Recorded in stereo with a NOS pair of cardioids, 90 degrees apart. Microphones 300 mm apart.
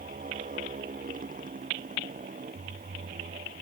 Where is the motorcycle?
25° right.